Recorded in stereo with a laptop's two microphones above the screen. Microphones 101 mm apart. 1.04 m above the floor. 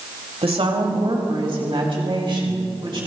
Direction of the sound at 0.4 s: 75° right (ahead or behind).